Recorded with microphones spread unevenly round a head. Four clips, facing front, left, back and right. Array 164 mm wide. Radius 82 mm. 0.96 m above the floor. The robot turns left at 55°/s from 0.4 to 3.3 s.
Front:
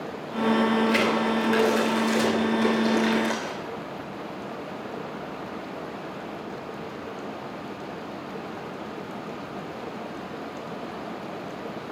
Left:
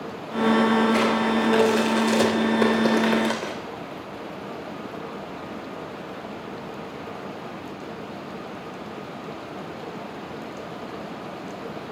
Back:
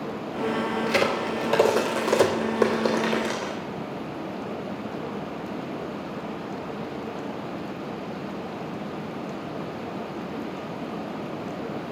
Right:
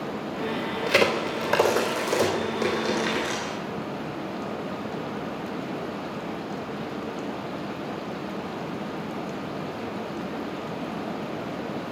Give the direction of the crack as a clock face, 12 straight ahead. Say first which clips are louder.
Left 2 dB, front 1 dB; 4 o'clock.